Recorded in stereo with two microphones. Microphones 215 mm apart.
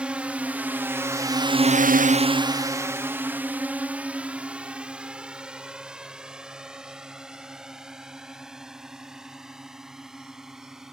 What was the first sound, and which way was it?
A drone, 5° right (ahead or behind).